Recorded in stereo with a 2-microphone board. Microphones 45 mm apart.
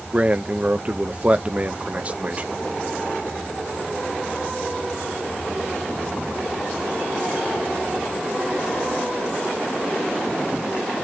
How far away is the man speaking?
About 0.6 m.